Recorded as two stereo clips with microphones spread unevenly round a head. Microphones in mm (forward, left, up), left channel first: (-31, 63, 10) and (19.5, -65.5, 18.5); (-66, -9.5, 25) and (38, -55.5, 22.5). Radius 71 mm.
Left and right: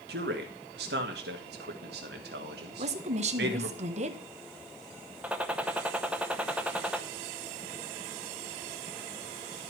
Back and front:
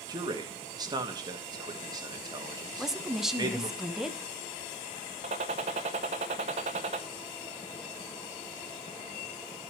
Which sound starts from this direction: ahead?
A gunshot, at 5.2 s.